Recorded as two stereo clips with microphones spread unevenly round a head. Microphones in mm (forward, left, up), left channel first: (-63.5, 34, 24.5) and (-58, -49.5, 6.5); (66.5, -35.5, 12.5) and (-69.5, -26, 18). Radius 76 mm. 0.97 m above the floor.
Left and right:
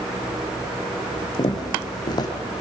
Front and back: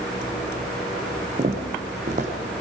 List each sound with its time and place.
1.4 s footsteps: 130° left, 3 m